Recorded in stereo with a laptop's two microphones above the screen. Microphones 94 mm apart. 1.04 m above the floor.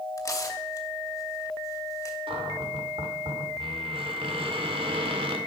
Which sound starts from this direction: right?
A cupboard door, at 2.3 s.